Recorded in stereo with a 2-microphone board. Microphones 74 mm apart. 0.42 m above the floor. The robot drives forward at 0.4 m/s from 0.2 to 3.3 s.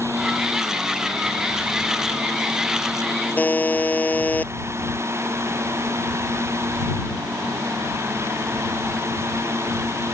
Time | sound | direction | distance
3.4 | a buzzer | 25° left (ahead or behind) | ?